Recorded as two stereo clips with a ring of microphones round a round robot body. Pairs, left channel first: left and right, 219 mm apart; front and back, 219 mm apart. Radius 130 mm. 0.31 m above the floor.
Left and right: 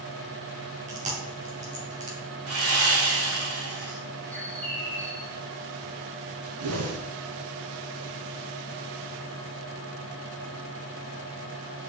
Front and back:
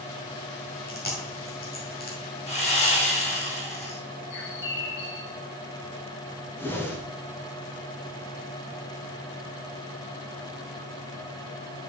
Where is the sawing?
60° right, 3 m.